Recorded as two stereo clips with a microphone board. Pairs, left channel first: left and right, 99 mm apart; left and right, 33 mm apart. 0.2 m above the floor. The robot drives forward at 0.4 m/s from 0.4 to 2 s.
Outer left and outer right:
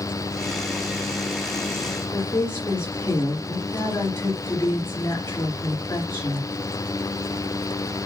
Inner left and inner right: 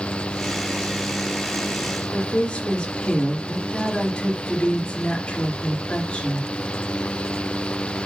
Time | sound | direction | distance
2.1 | a woman speaking | 25° left (ahead or behind) | 3 m